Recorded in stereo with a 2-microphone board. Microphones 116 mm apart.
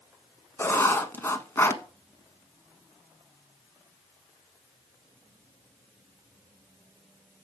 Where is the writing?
20° left (ahead or behind), 0.6 m.